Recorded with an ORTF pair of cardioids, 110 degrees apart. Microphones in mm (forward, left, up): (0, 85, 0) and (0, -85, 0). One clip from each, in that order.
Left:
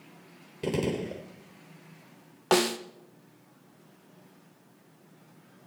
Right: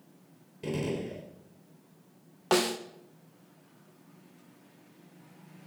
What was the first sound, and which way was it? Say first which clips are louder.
A gunshot: left 4 dB; 40° left.